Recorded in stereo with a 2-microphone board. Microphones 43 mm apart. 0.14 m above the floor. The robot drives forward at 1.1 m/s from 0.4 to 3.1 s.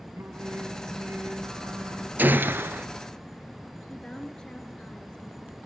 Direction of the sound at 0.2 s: 70° right (ahead or behind).